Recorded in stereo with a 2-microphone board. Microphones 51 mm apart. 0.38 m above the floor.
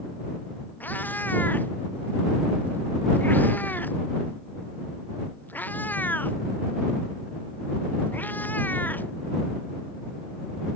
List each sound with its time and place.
0.8 s a cat meowing: 35° left (ahead or behind)